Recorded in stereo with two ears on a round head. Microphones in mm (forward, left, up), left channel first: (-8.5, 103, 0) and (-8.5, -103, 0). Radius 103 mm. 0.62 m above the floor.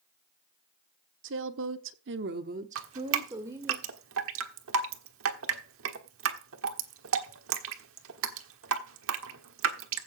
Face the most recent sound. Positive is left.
turn(degrees=-65)  # may be behind; listen again after turning